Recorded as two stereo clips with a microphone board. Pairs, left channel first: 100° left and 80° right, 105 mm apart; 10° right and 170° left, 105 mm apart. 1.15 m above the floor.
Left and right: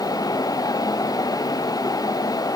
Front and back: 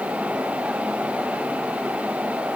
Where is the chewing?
I don't hear chewing.